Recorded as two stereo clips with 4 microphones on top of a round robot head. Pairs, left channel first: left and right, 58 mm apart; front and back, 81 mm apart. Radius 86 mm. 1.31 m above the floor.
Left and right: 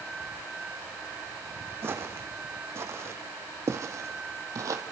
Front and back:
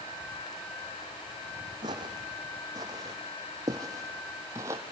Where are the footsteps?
135° right, 4 m; by 4.8 s 115° right, 3 m.